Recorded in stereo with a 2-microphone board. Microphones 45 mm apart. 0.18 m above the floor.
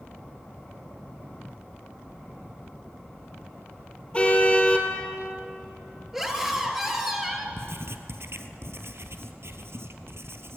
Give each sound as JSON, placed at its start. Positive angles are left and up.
{"t": 4.1, "sound": "a car horn", "side_deg": 25, "distance_m": 3.0}
{"t": 6.1, "sound": "a scream", "side_deg": -5, "distance_m": 3.5}
{"t": 7.6, "sound": "writing", "side_deg": -65, "distance_m": 1.7}